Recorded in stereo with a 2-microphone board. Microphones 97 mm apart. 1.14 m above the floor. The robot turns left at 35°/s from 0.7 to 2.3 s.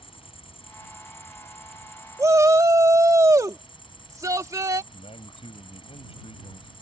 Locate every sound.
0.0 s an insect: 115° left; by 6.8 s 60° left
2.2 s a shout: 30° right (ahead or behind); by 4.8 s 35° right (ahead or behind)
4.9 s a man speaking: 85° left